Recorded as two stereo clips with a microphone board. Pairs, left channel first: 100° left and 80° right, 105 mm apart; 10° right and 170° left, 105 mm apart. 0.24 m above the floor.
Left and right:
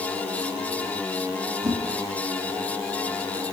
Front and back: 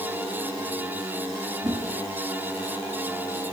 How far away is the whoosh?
About 4.5 m.